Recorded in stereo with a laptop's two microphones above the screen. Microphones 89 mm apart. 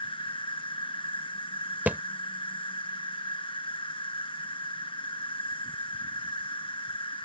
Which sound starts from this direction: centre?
A thud, at 1.9 s.